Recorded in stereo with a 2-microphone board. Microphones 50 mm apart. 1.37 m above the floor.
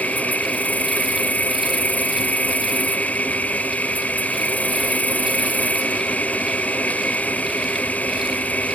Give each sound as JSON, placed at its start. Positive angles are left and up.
{"t": 0.0, "sound": "an insect", "side_deg": 30}